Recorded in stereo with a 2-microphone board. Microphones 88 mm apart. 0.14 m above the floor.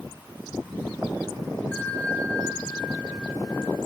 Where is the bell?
15° left (ahead or behind), 1.7 m.